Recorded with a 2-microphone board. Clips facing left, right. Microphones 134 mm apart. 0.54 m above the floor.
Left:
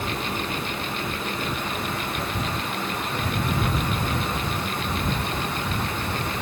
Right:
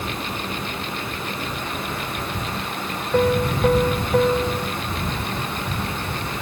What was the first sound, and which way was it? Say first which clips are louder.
A piano: right 11 dB; 75° right (ahead or behind).